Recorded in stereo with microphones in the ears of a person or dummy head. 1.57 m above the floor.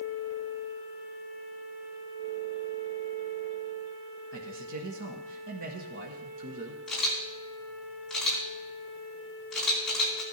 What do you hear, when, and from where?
4.3 s a man speaking: 70° right (ahead or behind), 1.2 m
6.9 s a camera shutter: 5° left (ahead or behind), 4 m